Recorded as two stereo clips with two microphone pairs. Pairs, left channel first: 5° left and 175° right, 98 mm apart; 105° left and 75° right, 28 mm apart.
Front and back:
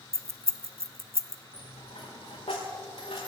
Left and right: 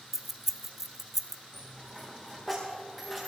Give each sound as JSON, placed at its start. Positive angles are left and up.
{"t": 0.1, "sound": "keys jangling", "azimuth_deg": -145, "distance_m": 0.8}
{"t": 1.5, "sound": "a dropped coin", "azimuth_deg": 10, "distance_m": 7.0}